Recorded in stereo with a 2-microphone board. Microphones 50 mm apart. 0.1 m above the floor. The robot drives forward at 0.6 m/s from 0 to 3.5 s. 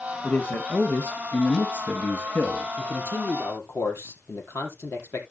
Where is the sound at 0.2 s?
30° left (ahead or behind), 2.5 m; by 2.7 s 45° left (ahead or behind), 2 m.